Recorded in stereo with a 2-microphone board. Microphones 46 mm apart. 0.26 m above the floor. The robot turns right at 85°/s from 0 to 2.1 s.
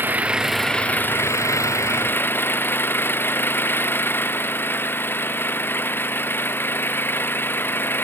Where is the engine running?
45° right; by 8.0 s 135° left.